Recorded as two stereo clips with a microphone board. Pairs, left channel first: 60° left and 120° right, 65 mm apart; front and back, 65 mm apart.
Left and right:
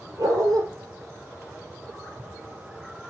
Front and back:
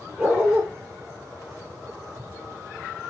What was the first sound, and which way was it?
A dog barking, 110° right.